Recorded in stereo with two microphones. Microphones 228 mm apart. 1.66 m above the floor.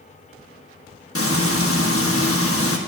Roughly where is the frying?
Left.